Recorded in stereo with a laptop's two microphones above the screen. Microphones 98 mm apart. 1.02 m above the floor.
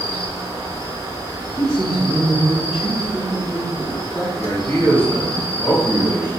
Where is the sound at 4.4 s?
25° left (ahead or behind), 1.6 m.